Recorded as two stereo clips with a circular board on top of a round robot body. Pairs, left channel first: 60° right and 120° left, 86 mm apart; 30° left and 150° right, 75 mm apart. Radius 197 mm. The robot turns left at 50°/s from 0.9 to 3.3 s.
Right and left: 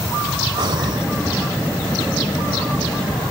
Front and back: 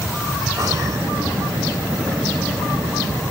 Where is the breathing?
160° left, 0.8 m; by 1.1 s 150° left, 0.8 m.